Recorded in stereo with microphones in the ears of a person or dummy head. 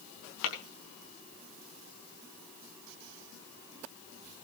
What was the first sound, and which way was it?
Tapping, 65° left (ahead or behind).